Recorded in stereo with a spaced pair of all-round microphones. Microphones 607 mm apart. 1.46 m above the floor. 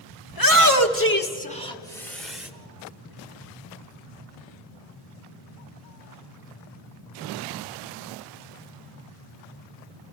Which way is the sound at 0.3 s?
35° left (ahead or behind).